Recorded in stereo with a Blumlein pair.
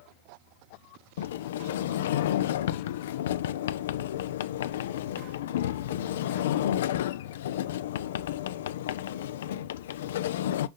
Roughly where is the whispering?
No whispering in this recording.